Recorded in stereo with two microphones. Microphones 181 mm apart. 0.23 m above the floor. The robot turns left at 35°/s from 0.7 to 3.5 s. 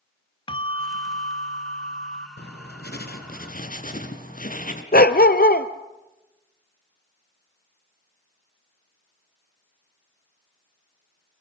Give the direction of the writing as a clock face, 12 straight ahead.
9 o'clock.